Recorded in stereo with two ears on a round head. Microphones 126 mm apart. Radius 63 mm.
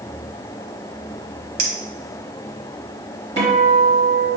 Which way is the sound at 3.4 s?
50° right (ahead or behind).